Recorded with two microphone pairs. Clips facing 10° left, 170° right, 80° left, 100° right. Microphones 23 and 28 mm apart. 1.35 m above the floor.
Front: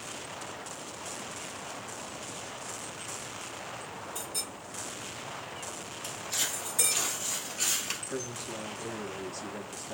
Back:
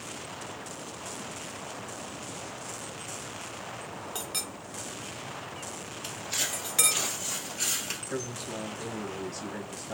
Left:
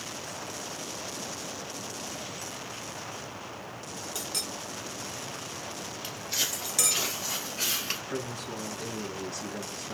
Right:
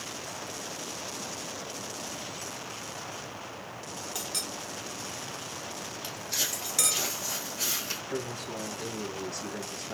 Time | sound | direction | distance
4.2 | a clink | 175° left | 0.9 m
6.0 | footsteps | 150° left | 1.7 m
8.1 | a man speaking | straight behind | 1.6 m